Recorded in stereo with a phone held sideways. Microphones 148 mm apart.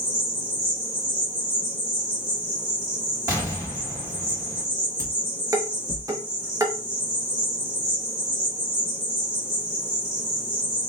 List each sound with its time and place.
0.0 s an insect: 30° right (ahead or behind), 2.5 m
3.3 s an explosion: 25° right (ahead or behind), 3 m
5.0 s dishes clattering: 20° right (ahead or behind), 1.1 m